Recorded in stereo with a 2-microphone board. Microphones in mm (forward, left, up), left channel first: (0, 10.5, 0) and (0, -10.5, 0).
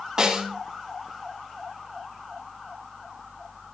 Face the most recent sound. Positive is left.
turn(degrees=-35)  # may be behind; listen again after turning